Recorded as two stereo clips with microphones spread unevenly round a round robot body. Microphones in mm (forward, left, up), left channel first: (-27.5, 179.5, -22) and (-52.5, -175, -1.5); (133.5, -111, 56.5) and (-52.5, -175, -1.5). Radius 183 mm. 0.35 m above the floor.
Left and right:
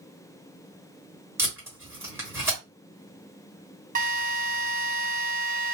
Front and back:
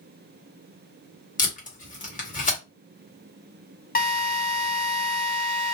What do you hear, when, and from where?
1.4 s tape being pulled: 10° right, 1.6 m
4.0 s a drill: 30° right, 1.1 m